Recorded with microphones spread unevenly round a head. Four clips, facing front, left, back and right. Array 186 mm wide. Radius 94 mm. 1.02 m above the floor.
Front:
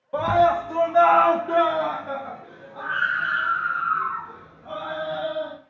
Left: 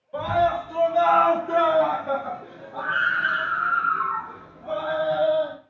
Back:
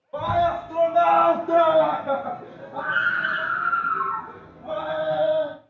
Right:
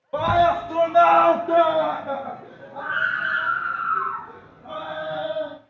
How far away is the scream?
About 0.9 m.